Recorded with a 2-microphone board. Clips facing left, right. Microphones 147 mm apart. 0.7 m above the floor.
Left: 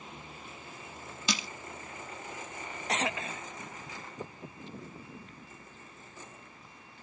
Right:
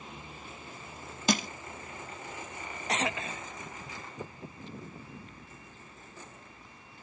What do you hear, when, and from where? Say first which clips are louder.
1.3 s crushing: right 7 dB; 50° right (ahead or behind), 0.6 m